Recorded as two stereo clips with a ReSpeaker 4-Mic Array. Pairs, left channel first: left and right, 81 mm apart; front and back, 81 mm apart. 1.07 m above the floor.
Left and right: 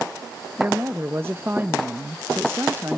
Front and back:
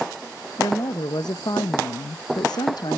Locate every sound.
0.6 s a woman speaking: 30° right, 0.7 m